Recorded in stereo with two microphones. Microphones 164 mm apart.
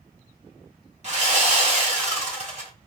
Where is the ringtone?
I don't hear a ringtone.